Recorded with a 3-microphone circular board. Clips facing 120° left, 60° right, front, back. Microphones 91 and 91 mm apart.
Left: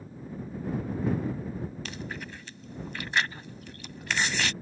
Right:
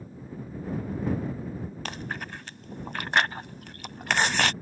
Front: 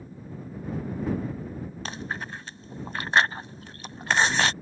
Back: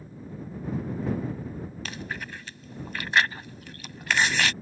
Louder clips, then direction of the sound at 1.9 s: Right 3 dB, front 2 dB; 50° right.